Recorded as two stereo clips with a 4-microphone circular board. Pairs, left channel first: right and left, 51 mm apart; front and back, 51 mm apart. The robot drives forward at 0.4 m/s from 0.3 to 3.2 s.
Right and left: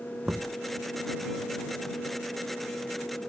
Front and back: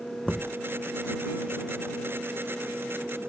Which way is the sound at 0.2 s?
75° left.